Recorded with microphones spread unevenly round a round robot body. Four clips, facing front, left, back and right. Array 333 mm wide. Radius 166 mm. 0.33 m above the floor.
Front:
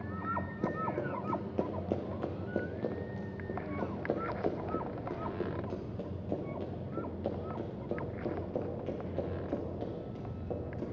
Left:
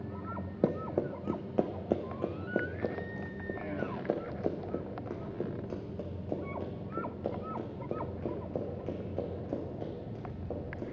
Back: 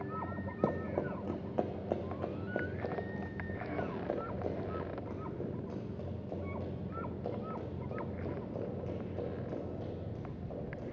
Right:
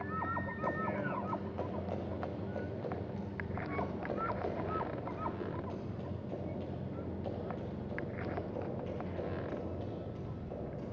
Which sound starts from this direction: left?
Running footsteps, at 0.6 s.